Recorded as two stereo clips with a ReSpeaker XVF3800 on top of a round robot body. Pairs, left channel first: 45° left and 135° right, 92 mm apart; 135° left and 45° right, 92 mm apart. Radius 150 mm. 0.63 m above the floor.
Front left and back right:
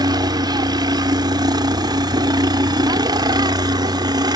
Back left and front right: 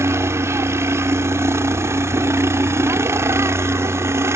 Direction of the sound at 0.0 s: 105° right.